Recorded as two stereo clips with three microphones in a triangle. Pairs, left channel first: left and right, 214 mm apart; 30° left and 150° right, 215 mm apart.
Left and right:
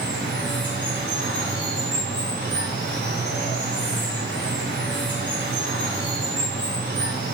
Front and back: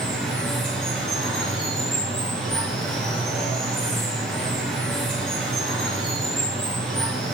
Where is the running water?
55° right, 3 m.